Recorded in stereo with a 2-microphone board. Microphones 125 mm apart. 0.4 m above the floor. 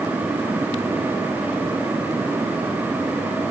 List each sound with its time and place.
Only background noise.